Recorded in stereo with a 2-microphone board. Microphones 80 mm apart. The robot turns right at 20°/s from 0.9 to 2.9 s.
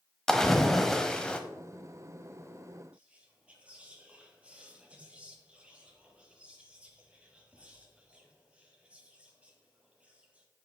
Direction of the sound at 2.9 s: 15° right (ahead or behind).